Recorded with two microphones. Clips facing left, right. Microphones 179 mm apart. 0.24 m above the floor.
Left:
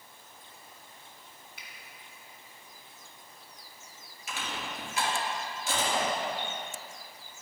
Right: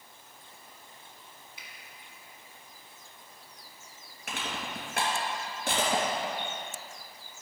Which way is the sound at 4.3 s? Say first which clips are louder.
Right 1 dB; 60° right (ahead or behind).